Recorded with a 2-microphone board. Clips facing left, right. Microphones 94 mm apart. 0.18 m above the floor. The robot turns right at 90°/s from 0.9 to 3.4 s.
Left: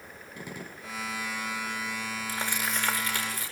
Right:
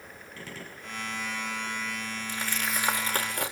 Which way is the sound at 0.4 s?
15° left (ahead or behind).